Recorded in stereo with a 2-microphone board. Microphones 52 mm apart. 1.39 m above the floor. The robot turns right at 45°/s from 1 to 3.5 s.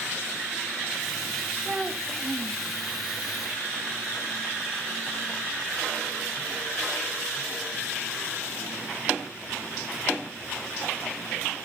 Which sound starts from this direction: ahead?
A child speaking, at 1.6 s.